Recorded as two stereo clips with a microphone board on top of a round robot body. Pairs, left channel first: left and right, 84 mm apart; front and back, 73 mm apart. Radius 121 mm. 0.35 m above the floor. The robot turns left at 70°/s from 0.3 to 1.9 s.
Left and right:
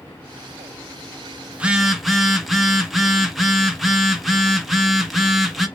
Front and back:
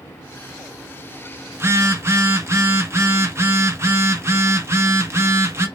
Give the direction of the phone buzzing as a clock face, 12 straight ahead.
5 o'clock.